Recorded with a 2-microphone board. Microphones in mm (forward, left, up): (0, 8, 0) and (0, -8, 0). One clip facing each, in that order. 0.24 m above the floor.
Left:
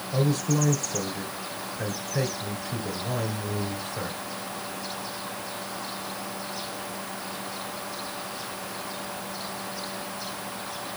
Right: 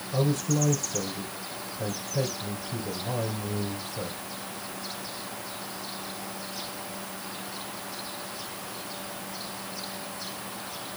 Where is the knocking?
No knocking in this recording.